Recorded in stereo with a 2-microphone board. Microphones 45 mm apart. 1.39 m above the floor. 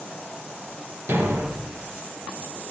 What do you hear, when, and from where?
1.1 s a thud: 70° right (ahead or behind), 3.5 m